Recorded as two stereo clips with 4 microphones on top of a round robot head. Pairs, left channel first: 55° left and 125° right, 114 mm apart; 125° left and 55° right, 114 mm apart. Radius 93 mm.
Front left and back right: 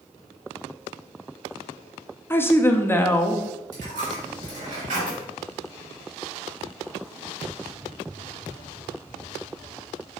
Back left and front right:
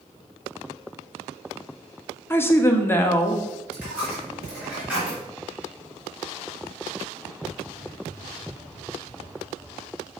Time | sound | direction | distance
2.3 | a woman speaking | 90° left | 0.9 m
3.7 | a dropped coin | 135° right | 3 m